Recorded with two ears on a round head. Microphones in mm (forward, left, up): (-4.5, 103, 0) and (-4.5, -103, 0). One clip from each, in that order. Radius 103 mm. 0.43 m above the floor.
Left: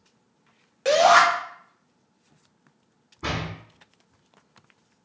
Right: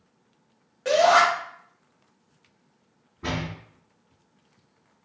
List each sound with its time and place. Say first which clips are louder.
0.8 s a shout: left 2 dB; 40° left (ahead or behind), 1.9 m
3.2 s a door slam: left 1 dB; 75° left (ahead or behind), 2.5 m